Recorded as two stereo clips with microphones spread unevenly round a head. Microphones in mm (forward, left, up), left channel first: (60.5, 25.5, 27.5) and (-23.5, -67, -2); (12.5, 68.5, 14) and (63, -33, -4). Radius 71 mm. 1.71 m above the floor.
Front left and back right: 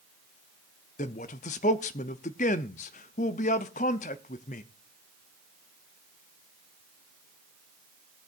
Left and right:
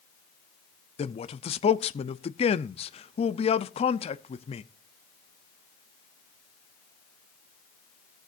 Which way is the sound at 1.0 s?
85° left.